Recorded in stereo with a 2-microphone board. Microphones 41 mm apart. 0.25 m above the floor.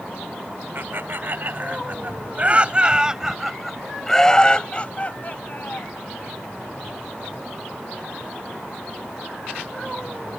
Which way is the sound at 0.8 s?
55° right (ahead or behind).